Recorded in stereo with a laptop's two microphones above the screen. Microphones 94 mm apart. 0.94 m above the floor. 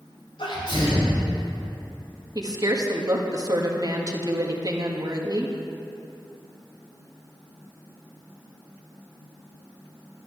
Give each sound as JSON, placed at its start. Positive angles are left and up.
{"t": 0.4, "sound": "a sneeze", "side_deg": 60, "distance_m": 4.0}
{"t": 2.4, "sound": "a woman speaking", "side_deg": -40, "distance_m": 1.6}